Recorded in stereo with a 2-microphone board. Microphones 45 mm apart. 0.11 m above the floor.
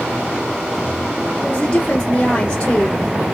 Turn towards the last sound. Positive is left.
turn(degrees=30)  # may be behind; listen again after turning